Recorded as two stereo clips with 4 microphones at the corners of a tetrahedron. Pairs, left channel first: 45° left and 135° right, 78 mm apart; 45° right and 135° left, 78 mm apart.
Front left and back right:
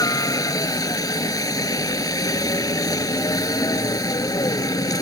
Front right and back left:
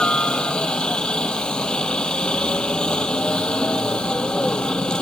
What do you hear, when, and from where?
0.0 s a helicopter: 30° left